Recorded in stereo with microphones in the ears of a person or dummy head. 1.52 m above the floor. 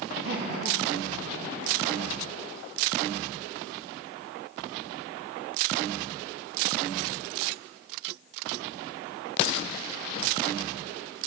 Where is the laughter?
65° right (ahead or behind), 2.5 m; by 2.2 s 35° right (ahead or behind), 2.5 m.